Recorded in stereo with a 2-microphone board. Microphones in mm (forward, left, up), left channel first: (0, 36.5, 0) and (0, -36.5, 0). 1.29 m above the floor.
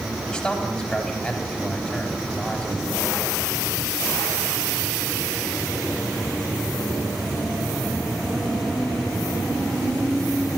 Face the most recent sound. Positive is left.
turn(degrees=10)  # may be behind; listen again after turning